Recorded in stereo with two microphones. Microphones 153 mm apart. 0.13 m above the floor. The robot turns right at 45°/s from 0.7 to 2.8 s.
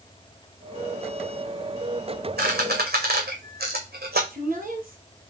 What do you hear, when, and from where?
2.4 s a squeak: 80° right, 1.4 m
4.3 s a woman speaking: 60° right (ahead or behind), 2.5 m